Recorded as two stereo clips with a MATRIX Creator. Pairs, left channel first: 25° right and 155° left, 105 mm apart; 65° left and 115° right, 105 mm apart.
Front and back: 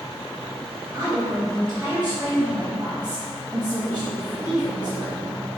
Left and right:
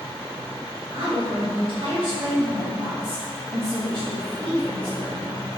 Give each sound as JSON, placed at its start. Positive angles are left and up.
{"t": 0.9, "sound": "a woman speaking", "azimuth_deg": -135, "distance_m": 1.7}